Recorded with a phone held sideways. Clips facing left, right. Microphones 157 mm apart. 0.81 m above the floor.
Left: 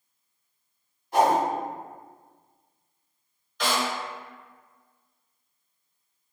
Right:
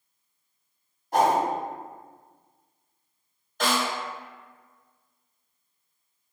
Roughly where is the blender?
No blender in this recording.